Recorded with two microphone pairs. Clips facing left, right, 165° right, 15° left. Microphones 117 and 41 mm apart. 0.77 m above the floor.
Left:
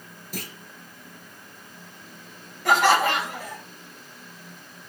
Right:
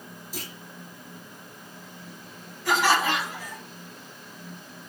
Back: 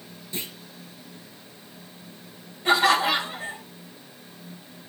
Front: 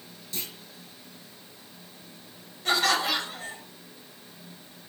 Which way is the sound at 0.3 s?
125° left.